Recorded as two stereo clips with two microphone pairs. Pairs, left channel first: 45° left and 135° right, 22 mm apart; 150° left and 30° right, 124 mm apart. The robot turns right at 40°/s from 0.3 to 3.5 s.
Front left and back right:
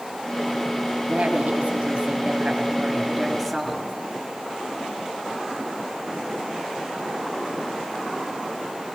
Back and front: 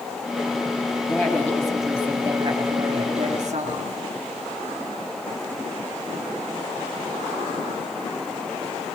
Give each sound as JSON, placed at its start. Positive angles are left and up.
{"t": 1.1, "sound": "a woman speaking", "azimuth_deg": -145, "distance_m": 4.5}